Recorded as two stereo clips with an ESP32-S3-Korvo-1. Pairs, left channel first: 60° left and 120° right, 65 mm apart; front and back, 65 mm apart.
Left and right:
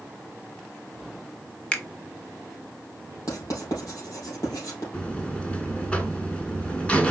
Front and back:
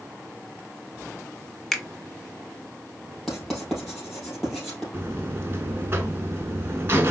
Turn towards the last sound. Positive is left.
turn(degrees=130)